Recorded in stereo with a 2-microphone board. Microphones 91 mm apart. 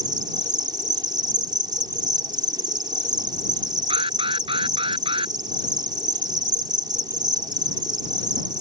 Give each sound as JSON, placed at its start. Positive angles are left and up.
{"t": 0.0, "sound": "an insect", "side_deg": -50}
{"t": 3.9, "sound": "an alarm", "side_deg": -75}